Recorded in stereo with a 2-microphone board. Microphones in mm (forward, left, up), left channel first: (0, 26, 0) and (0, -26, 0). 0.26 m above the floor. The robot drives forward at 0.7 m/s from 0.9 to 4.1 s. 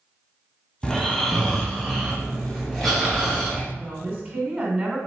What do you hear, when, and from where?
0.8 s snoring: 5° left (ahead or behind), 0.9 m; by 3.6 s centre (ahead or behind), 2.5 m
3.7 s a woman speaking: 35° right (ahead or behind), 1.5 m